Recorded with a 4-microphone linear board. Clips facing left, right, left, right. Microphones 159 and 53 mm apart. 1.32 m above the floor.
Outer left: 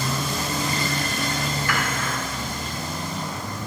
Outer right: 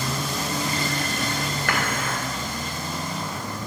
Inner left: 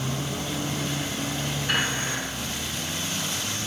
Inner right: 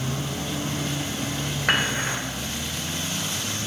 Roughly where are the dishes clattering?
Right.